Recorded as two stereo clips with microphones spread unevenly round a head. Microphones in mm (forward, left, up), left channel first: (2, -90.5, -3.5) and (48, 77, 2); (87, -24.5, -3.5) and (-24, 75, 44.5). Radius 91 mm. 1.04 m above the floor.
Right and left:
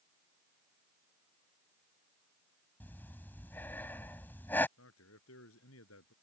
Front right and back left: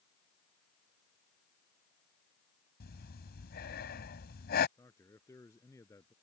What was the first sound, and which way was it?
Breathing, 25° right.